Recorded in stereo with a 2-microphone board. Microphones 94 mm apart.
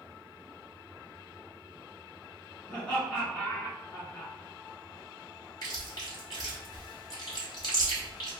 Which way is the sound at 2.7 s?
10° left (ahead or behind).